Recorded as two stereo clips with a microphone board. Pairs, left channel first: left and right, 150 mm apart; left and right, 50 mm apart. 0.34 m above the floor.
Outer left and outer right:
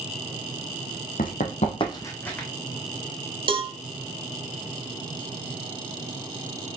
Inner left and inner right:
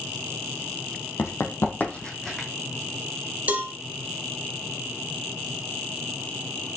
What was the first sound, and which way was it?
Running footsteps, 70° left (ahead or behind).